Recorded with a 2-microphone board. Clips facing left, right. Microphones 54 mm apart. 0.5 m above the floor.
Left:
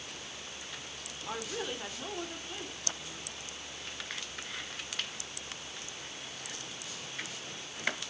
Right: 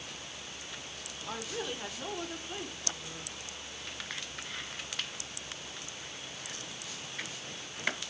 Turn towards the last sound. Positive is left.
turn(degrees=-20)  # may be behind; listen again after turning